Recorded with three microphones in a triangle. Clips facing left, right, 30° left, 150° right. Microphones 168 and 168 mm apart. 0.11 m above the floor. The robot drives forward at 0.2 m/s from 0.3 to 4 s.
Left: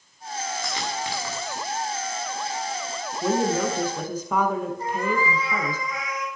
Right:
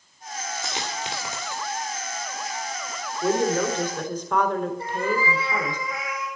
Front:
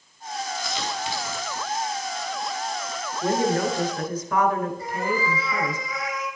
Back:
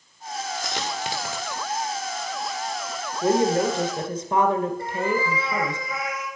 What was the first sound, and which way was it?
A dropped coin, 160° right.